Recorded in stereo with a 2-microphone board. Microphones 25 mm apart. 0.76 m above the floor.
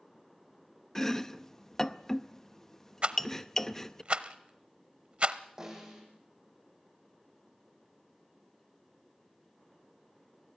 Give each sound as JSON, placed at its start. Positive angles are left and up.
{"t": 0.9, "sound": "chopping", "side_deg": 20, "distance_m": 0.7}
{"t": 3.0, "sound": "a rattle", "side_deg": -50, "distance_m": 0.8}
{"t": 5.6, "sound": "a snare drum", "side_deg": -15, "distance_m": 6.5}